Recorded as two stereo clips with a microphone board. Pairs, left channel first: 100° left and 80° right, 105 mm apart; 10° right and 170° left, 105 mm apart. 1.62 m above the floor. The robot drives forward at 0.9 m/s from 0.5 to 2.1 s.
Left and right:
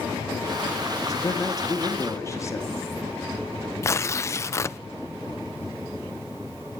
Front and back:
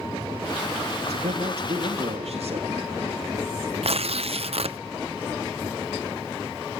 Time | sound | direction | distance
1.0 | a man speaking | 155° left | 2.5 m
3.8 | tearing paper | 160° left | 0.7 m